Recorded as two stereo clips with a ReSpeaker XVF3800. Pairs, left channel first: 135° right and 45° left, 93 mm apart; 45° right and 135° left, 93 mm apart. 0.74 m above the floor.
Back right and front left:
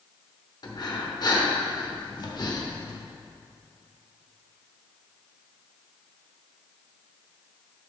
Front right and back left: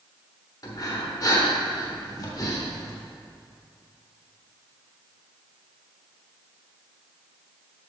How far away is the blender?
I don't hear a blender.